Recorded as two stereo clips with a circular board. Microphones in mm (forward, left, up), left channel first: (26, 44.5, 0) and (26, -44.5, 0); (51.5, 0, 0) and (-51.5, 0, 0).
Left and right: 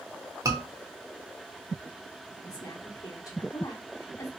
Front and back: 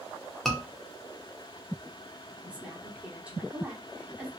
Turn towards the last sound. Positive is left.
turn(degrees=105)